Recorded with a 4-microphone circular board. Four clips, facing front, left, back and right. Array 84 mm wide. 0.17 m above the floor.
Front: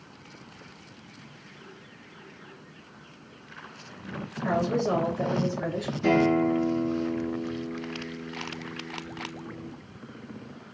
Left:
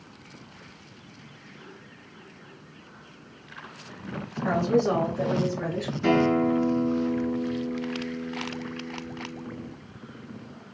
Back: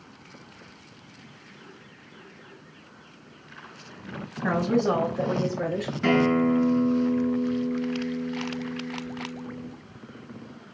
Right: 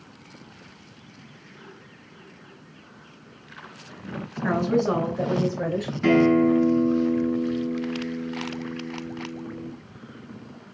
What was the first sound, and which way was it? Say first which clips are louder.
A woman speaking: right 1 dB, back 2 dB; 140° right.